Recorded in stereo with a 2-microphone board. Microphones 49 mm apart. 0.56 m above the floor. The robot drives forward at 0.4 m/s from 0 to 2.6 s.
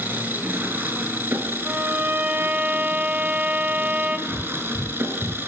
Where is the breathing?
65° right (ahead or behind), 1.6 m.